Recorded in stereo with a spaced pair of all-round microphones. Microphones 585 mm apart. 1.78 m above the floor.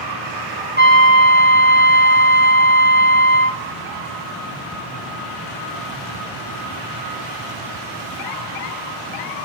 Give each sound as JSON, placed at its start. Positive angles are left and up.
{"t": 0.8, "sound": "a trumpet", "side_deg": 15, "distance_m": 3.5}